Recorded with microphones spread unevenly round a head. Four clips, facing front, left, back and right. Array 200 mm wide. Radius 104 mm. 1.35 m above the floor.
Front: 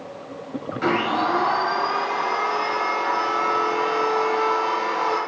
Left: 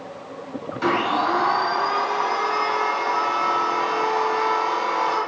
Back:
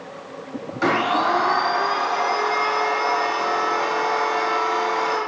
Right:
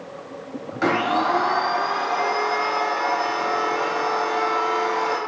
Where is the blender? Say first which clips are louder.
Right 1 dB, back 2 dB; 90° right, 1.3 m.